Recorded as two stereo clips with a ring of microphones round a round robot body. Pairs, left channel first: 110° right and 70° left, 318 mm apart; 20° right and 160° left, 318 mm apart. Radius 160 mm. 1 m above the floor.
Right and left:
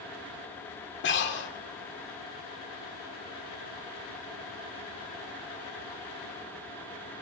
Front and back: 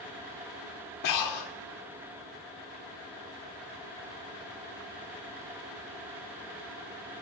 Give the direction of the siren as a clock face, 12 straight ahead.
No siren in this recording.